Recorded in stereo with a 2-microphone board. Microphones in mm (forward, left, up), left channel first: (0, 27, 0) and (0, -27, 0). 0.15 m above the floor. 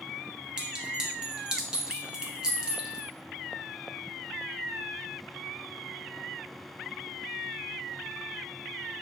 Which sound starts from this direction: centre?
A clink, at 0.6 s.